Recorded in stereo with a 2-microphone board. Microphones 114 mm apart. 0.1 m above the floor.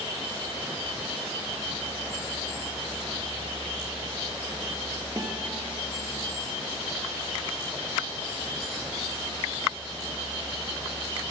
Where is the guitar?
30° right (ahead or behind), 5 m.